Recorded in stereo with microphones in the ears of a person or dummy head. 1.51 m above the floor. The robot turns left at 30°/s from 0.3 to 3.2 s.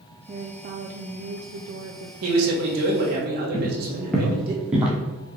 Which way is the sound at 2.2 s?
80° right.